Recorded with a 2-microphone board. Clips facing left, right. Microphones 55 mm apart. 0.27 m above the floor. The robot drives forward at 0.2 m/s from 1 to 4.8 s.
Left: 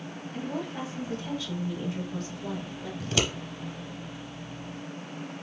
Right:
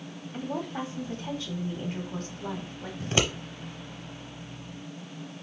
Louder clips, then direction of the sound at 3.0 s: Right 2 dB; 30° right (ahead or behind).